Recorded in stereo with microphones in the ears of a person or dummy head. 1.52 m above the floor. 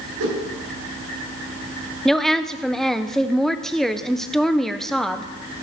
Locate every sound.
0.2 s a whoosh: 65° right (ahead or behind), 4.5 m
2.0 s a woman speaking: centre (ahead or behind), 1.1 m